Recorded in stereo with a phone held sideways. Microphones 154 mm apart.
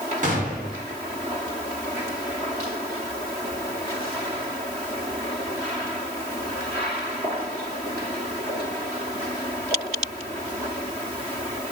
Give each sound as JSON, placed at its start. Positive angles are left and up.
{"t": 0.2, "sound": "a gunshot", "side_deg": -50, "distance_m": 1.3}